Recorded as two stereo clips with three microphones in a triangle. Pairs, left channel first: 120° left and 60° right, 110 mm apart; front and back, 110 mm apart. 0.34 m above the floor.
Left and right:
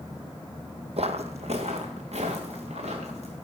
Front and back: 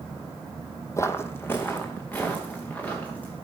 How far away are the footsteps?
About 0.8 m.